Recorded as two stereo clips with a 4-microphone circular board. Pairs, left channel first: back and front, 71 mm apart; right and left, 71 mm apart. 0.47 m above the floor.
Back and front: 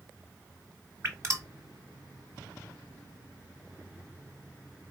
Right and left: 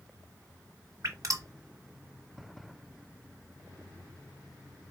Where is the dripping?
50° left, 1.3 m.